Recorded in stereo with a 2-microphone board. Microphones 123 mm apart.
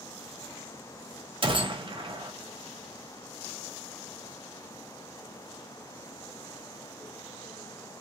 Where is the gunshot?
45° right (ahead or behind), 0.6 m.